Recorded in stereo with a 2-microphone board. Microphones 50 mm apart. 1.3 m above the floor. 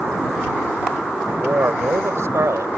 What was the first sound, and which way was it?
A man speaking, 55° right (ahead or behind).